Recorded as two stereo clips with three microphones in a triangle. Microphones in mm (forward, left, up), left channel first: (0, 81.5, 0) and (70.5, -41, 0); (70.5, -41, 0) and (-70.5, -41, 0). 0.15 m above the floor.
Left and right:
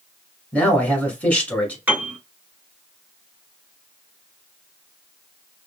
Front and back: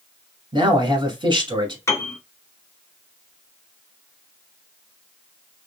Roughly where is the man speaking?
Behind.